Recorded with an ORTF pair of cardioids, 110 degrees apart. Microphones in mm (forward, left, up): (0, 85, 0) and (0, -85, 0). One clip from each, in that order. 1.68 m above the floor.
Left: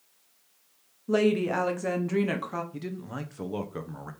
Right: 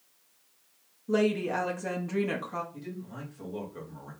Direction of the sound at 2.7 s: 60° left.